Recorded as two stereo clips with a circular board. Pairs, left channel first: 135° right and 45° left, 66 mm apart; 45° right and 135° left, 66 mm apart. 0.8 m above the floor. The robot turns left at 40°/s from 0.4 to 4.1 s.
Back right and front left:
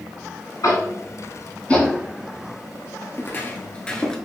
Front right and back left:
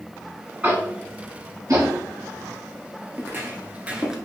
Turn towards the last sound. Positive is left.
turn(degrees=180)